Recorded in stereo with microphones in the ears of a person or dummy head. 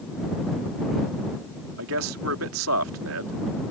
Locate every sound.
1.8 s a man speaking: 85° right